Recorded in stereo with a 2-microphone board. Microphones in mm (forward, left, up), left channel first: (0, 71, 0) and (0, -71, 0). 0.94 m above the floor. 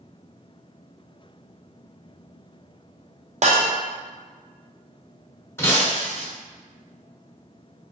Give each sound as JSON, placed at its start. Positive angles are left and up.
{"t": 3.4, "sound": "breaking glass", "side_deg": -55, "distance_m": 0.5}
{"t": 5.6, "sound": "breaking glass", "side_deg": 15, "distance_m": 0.8}